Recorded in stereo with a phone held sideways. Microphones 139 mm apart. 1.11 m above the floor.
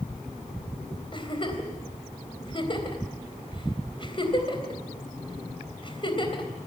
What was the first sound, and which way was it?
A giggle, 40° left (ahead or behind).